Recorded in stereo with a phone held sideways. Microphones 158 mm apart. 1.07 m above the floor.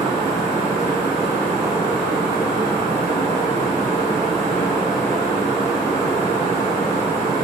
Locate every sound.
0.0 s a fan: 35° left (ahead or behind), 2 m